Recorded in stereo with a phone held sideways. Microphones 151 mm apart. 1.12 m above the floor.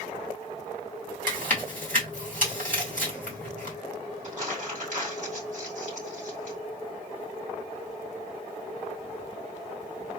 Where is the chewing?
60° right (ahead or behind), 3 m.